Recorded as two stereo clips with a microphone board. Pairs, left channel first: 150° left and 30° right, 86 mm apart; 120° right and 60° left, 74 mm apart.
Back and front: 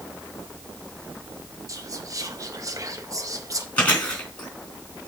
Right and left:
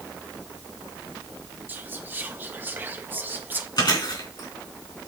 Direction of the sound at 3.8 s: 135° right.